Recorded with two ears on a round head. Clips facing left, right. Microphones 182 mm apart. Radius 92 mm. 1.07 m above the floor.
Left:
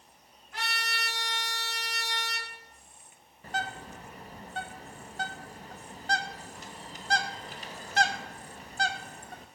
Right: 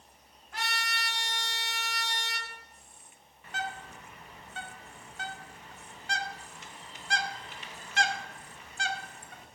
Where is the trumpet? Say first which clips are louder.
Right 1 dB; 45° right (ahead or behind), 3.5 m.